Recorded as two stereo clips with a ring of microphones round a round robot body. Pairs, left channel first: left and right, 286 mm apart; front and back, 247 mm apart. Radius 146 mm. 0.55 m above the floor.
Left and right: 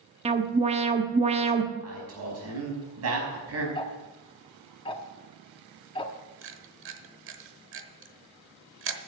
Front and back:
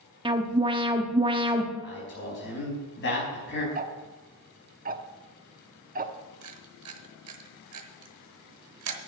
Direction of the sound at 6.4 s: 140° right.